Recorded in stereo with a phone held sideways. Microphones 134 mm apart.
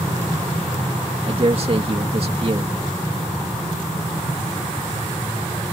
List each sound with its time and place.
1.3 s a man speaking: 45° right (ahead or behind)